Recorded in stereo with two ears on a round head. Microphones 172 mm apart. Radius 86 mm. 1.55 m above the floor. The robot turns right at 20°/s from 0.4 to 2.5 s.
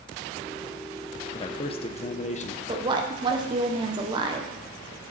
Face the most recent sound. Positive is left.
turn(degrees=-25)  # may be behind; listen again after turning